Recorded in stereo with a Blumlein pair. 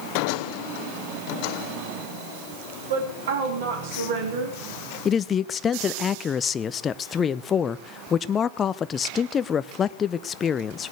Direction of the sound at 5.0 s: 20° left.